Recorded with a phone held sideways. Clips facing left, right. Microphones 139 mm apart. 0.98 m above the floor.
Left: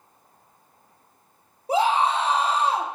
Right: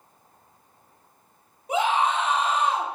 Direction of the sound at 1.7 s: 35° left (ahead or behind).